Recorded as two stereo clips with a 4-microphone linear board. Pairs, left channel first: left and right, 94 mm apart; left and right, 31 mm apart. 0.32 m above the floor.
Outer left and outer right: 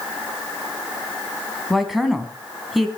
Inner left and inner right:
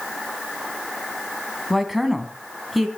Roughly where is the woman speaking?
Centre.